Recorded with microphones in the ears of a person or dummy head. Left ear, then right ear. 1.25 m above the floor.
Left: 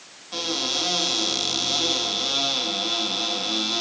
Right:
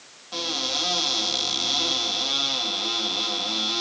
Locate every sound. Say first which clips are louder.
0.3 s a cupboard door: left 1 dB; 15° right (ahead or behind), 2.0 m